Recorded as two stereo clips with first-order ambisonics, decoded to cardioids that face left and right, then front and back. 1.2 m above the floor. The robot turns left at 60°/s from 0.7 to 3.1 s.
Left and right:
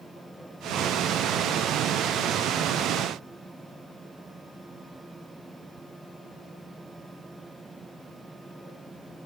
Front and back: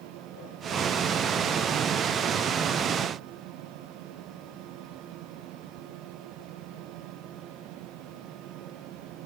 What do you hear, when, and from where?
Only background noise.